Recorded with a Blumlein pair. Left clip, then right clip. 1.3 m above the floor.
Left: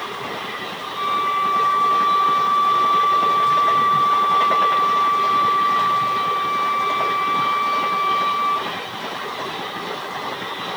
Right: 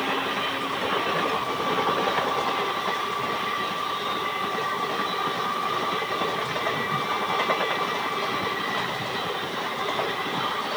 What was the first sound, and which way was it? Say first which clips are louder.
A flute: left 10 dB; 30° left.